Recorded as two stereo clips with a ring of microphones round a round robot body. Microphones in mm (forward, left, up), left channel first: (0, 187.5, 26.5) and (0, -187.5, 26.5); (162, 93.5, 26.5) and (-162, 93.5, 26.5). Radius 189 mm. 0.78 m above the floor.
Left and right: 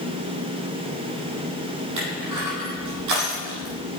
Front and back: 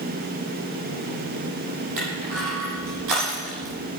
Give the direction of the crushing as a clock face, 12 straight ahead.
5 o'clock.